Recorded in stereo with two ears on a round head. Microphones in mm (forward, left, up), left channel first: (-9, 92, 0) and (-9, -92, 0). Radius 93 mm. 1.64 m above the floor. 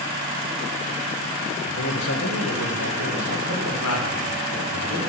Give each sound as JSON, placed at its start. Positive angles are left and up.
{"t": 1.6, "sound": "a man speaking", "side_deg": 65, "distance_m": 1.3}